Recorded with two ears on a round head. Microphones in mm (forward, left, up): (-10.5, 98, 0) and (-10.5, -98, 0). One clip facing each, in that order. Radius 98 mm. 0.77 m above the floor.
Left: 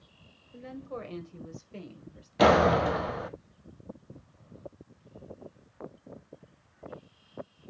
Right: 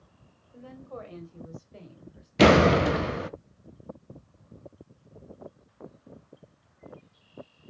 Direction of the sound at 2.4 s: 30° right (ahead or behind).